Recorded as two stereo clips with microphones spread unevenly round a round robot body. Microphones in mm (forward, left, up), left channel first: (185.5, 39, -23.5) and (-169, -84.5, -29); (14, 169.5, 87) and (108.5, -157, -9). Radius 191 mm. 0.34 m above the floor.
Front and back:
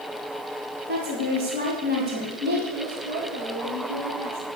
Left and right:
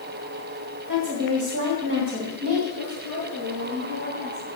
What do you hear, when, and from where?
0.9 s a woman speaking: 105° right, 2.5 m
2.8 s a woman speaking: 120° right, 5.5 m